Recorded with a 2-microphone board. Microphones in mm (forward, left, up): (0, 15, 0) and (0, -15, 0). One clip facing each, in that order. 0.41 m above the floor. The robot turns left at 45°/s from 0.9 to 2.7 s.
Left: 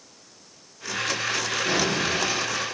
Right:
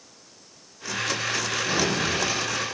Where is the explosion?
80° left, 6 m; by 2.6 s 35° left, 6 m.